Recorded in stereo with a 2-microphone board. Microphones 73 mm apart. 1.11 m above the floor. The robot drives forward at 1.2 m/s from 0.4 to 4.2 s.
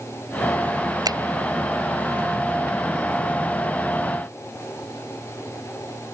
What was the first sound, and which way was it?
A finger snap, 70° right (ahead or behind).